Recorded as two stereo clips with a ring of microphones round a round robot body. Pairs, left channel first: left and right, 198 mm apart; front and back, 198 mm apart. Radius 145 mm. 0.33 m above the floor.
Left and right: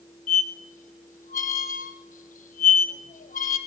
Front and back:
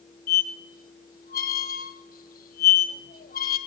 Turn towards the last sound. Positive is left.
turn(degrees=40)